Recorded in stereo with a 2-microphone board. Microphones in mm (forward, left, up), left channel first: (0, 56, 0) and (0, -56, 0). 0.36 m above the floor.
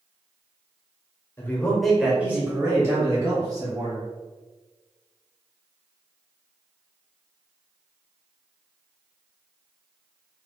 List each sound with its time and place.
1.4 s a man speaking: 20° left (ahead or behind), 0.9 m; by 4.1 s 35° right (ahead or behind), 2 m